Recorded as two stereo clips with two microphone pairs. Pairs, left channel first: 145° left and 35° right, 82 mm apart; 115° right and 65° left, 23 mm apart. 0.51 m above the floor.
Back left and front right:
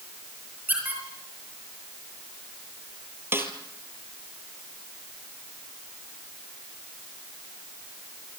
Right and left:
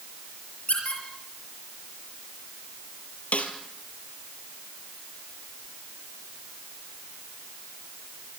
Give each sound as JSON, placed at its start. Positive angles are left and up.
{"t": 0.7, "sound": "a squeak", "azimuth_deg": -105, "distance_m": 6.5}
{"t": 3.3, "sound": "a snare drum", "azimuth_deg": -100, "distance_m": 2.5}